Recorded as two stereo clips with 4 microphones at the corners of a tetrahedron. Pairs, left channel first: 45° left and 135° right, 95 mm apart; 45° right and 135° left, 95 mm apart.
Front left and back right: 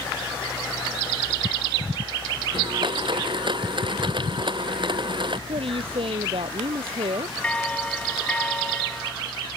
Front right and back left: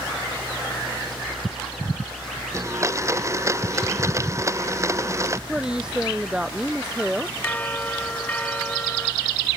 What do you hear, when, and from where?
2.5 s a blender: 170° right
5.5 s a woman speaking: 145° right
7.4 s a bell: 10° right